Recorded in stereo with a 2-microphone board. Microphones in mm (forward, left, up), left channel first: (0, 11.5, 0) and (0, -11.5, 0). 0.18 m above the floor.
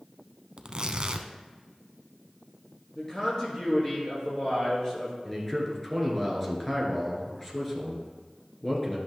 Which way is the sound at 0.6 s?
40° right (ahead or behind).